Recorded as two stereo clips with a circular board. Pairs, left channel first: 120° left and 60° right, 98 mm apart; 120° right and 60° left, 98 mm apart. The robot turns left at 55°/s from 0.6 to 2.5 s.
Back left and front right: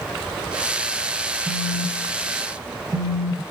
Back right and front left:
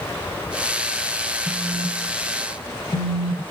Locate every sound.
1.5 s a phone buzzing: 10° right, 0.9 m; by 3.4 s 70° right, 0.9 m